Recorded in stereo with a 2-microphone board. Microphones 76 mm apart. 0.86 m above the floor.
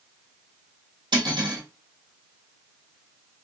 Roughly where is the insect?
I don't hear an insect.